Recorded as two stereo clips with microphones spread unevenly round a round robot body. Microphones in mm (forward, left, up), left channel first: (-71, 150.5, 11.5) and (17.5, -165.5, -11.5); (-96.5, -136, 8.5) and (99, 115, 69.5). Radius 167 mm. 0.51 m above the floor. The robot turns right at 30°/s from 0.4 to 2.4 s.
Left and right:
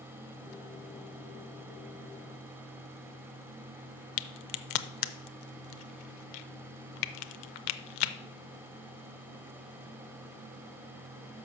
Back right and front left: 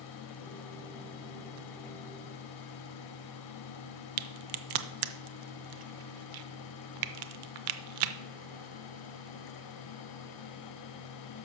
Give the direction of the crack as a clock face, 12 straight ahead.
9 o'clock.